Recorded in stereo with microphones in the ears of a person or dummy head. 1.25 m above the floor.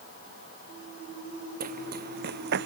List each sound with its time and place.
1.6 s running footsteps: 50° right (ahead or behind); by 2.7 s 60° right (ahead or behind)